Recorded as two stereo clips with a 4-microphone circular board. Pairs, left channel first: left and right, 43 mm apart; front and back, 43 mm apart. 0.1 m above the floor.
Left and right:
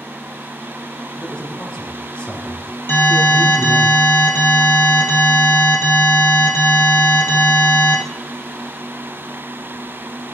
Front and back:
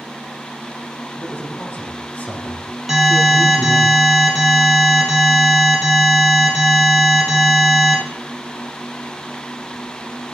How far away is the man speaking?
About 4 m.